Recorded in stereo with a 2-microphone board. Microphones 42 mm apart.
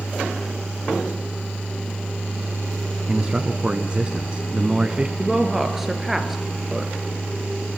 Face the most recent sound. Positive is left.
turn(degrees=-5)  # may be behind; listen again after turning